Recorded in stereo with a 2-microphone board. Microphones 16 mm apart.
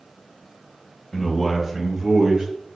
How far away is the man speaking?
About 1.0 m.